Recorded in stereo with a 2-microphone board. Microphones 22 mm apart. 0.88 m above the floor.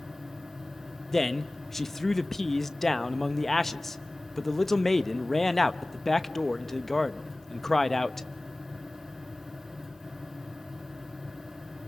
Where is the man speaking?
10° left (ahead or behind), 0.8 m.